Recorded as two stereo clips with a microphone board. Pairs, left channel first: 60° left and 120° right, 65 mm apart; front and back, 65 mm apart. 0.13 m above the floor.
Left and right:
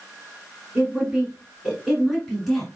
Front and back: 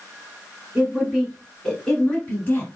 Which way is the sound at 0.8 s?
135° right.